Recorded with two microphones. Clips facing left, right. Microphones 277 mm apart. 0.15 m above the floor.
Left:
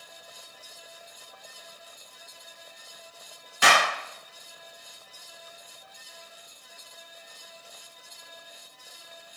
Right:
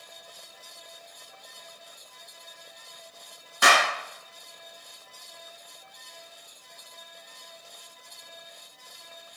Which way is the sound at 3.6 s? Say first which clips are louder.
Even; 5° left (ahead or behind).